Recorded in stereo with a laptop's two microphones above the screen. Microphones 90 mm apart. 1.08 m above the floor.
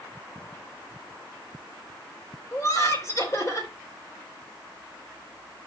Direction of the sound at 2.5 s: 35° left (ahead or behind).